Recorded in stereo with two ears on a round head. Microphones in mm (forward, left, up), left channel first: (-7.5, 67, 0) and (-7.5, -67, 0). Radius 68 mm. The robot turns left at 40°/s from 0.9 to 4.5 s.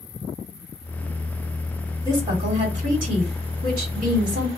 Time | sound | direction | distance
2.0 | a woman speaking | 30° right | 1.9 m